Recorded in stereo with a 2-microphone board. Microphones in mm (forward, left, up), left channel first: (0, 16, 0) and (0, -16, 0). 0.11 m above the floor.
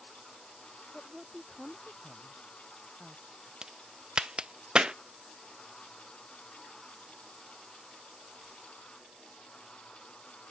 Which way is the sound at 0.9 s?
25° right (ahead or behind).